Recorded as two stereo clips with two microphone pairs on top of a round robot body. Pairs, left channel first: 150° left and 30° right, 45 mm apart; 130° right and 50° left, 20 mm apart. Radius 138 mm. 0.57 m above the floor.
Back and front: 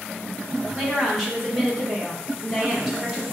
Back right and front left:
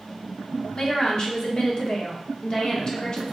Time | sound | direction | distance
0.7 | a woman speaking | 120° right | 1.6 m